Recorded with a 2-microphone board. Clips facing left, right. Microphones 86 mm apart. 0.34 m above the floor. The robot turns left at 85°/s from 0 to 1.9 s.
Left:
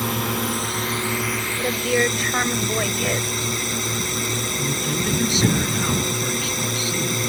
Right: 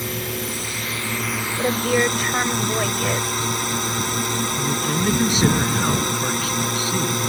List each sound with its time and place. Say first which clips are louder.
0.0 s a drone: left 4 dB; 110° left; by 7.3 s 50° right
1.6 s a woman speaking: right 2 dB; 20° right (ahead or behind); by 3.3 s 5° right (ahead or behind)
4.5 s a man speaking: right 2 dB; 40° right (ahead or behind)